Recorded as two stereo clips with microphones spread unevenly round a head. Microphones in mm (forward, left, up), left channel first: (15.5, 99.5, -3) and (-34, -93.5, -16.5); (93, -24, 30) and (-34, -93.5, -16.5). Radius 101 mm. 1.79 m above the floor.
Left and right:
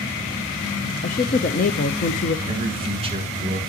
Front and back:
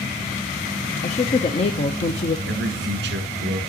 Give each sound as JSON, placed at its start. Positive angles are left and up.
{"t": 1.0, "sound": "a woman speaking", "azimuth_deg": 35, "distance_m": 0.6}
{"t": 2.5, "sound": "a man speaking", "azimuth_deg": -165, "distance_m": 1.8}